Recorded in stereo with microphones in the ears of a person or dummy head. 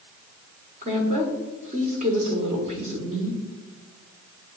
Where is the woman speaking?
45° right (ahead or behind), 1.0 m.